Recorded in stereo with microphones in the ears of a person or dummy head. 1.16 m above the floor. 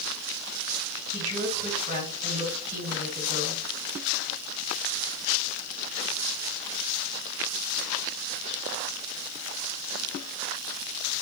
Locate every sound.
1.1 s a woman speaking: 35° right (ahead or behind), 2.5 m